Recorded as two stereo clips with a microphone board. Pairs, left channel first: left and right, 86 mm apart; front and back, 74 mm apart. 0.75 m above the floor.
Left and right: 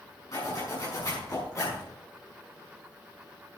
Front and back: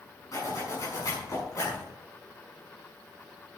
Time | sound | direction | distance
0.3 | a zipper | 40° left | 7 m